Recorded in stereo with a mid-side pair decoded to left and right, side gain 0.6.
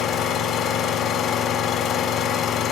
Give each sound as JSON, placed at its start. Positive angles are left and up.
{"t": 0.0, "sound": "an engine running", "azimuth_deg": 60, "distance_m": 4.0}